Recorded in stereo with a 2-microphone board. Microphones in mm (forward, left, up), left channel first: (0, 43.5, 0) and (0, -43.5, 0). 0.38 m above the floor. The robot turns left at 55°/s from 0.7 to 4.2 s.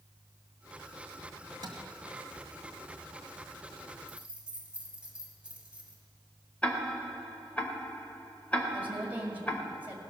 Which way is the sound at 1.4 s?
65° right (ahead or behind).